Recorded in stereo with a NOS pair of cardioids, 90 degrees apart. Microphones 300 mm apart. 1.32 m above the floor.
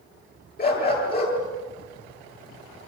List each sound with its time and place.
0.6 s a dog barking: 30° left, 9.5 m